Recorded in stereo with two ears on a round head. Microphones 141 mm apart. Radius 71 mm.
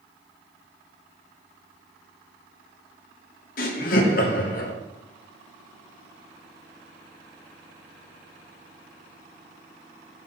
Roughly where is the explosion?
I don't hear an explosion.